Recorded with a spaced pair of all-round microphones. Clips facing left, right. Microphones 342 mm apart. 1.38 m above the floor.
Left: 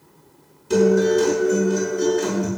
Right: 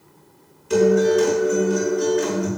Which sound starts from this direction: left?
A guitar, at 0.7 s.